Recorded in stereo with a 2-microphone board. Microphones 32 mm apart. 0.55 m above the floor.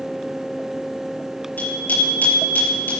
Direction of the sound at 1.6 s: 65° left (ahead or behind).